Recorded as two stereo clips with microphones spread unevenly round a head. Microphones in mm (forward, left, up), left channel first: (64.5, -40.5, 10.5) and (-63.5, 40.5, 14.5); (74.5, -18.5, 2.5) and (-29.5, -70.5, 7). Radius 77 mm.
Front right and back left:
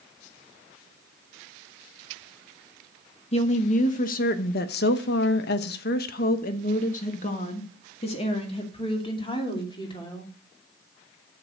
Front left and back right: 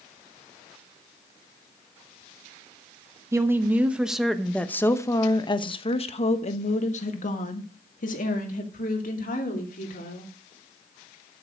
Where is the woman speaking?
85° right, 1.2 m; by 10.3 s 30° left, 3 m.